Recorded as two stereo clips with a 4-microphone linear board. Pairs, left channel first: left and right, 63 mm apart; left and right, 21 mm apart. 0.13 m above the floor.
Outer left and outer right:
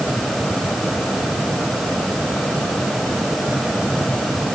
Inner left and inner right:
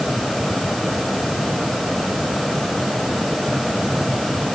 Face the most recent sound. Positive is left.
No sound to turn to.